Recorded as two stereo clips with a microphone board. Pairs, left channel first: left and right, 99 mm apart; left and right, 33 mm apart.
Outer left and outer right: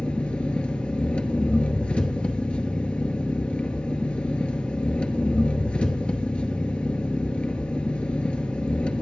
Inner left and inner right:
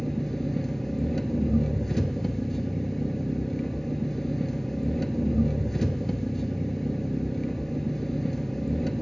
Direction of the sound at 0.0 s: 10° left (ahead or behind).